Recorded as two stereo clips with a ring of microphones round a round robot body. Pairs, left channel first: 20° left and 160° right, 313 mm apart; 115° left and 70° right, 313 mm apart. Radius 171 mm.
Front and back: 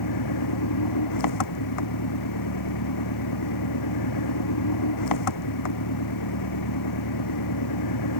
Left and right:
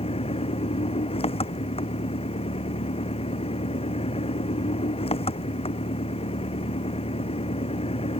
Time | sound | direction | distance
0.0 | an engine running | 40° left | ?